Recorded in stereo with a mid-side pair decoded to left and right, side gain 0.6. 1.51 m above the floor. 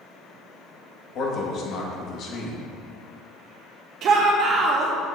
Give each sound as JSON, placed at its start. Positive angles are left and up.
{"t": 1.1, "sound": "a man speaking", "azimuth_deg": 55, "distance_m": 2.0}
{"t": 4.0, "sound": "a shout", "azimuth_deg": -55, "distance_m": 1.0}